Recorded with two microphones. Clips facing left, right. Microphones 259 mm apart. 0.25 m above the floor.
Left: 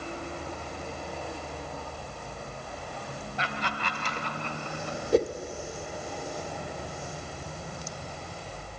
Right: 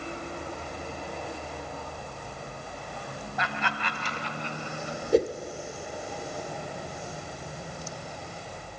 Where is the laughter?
30° left (ahead or behind), 1.5 m; by 5.0 s 60° left (ahead or behind), 3 m.